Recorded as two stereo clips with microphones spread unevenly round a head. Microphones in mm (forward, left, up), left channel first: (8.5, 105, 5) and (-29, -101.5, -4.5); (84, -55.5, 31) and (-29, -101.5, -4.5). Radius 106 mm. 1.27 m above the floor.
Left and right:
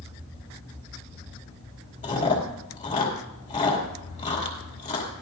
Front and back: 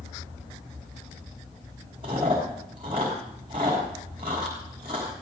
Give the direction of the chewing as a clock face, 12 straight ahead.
7 o'clock.